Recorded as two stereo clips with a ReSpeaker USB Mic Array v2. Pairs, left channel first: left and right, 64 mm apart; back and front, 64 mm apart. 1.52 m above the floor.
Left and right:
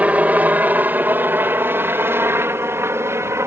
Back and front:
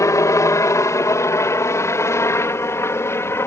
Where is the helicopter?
155° right; by 3.5 s 135° right.